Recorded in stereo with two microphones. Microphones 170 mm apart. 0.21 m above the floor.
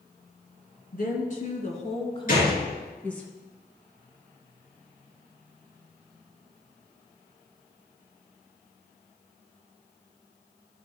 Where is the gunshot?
55° left (ahead or behind), 3.5 m.